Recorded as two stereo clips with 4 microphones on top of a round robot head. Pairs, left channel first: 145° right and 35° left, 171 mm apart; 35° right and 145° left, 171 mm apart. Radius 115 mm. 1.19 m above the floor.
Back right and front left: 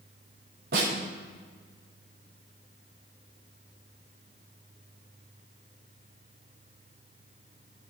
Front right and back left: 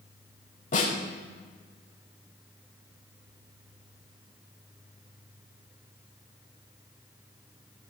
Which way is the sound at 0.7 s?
10° left.